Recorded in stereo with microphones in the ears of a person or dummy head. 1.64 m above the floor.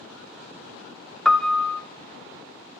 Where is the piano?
Centre (ahead or behind), 0.6 m.